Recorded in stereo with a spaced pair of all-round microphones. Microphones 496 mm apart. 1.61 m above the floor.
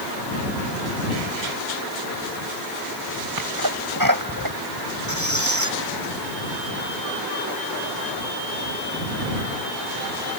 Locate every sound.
3.4 s a sneeze: 40° right (ahead or behind)
5.1 s a squeak: 35° right (ahead or behind)